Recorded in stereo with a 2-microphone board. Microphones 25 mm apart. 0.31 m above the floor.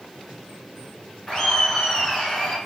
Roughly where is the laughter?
Left.